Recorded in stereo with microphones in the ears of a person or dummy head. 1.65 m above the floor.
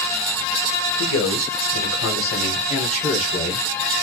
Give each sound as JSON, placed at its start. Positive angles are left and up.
{"t": 1.0, "sound": "a man speaking", "side_deg": 75, "distance_m": 0.8}